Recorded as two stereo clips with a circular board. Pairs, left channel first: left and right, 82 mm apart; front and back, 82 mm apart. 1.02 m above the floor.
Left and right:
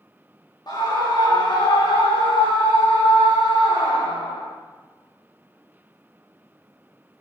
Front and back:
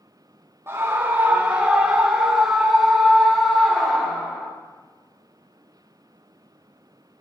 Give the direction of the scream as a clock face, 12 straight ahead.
8 o'clock.